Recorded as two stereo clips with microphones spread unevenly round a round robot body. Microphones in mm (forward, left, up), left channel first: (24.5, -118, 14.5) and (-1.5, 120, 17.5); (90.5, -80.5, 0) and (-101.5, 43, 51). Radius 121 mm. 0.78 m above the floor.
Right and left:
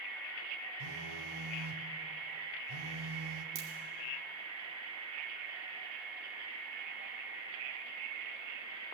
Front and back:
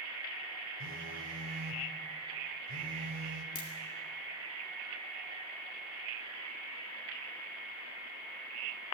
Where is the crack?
30° left, 2 m.